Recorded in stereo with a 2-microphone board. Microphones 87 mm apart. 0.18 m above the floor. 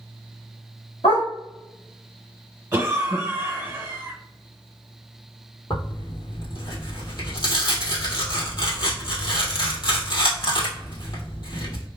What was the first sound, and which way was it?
A dog barking, 75° left (ahead or behind).